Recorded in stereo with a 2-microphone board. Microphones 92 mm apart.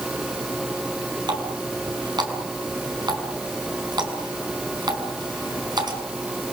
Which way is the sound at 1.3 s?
50° right (ahead or behind).